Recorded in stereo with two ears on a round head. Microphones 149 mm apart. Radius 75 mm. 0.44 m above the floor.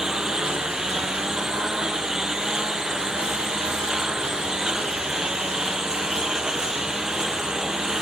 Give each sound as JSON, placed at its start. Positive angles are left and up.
{"t": 0.0, "sound": "a lawn mower", "side_deg": -5}